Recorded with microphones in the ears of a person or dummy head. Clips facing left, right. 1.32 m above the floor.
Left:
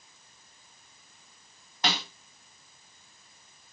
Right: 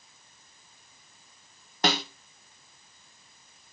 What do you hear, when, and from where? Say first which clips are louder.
1.8 s a snare drum: right 5 dB; 45° right (ahead or behind), 0.9 m